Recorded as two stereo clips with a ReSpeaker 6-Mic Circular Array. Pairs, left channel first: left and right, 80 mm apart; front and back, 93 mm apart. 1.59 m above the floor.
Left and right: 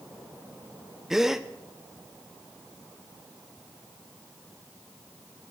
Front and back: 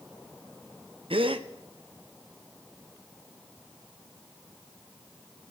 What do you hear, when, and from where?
1.1 s a gasp: 175° right, 0.7 m